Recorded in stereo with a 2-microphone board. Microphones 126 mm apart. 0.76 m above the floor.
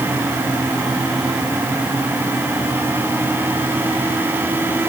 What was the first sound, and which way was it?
Only background noise.